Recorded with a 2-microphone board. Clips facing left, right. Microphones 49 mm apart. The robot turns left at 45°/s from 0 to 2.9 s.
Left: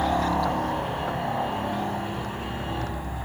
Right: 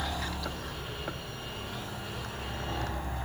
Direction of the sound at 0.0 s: 140° left.